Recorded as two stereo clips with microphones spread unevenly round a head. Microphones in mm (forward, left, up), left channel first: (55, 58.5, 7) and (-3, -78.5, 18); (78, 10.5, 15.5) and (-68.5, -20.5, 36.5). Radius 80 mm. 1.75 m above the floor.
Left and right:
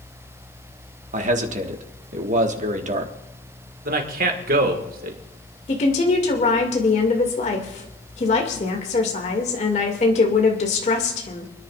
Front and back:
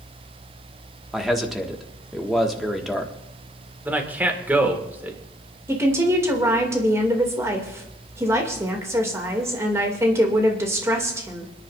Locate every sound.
1.1 s a man speaking: 85° right, 1.6 m
3.9 s a man speaking: 90° right, 1.9 m
5.7 s a woman speaking: 120° left, 2.5 m